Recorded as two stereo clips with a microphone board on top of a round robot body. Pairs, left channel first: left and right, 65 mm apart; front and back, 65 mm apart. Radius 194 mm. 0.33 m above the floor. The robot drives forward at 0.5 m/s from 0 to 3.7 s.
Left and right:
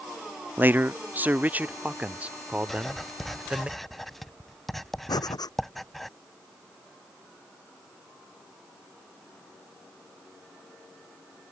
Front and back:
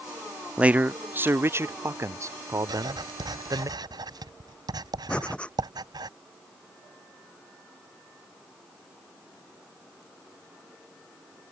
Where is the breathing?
75° left.